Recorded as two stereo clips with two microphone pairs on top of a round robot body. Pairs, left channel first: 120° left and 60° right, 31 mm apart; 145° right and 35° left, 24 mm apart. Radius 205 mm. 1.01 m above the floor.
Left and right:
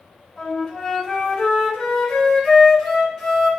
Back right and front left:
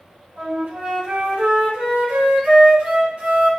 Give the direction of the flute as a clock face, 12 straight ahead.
11 o'clock.